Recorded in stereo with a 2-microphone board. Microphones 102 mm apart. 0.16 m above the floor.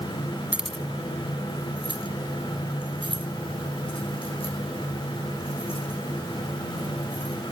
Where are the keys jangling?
15° right (ahead or behind), 0.7 m; by 7.3 s 75° left (ahead or behind), 8 m.